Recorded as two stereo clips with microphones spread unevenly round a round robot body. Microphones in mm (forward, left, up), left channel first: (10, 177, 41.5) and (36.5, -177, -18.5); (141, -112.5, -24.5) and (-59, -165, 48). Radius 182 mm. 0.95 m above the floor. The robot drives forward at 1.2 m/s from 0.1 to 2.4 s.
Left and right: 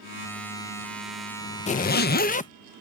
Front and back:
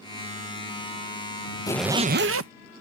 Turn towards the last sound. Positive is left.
turn(degrees=165)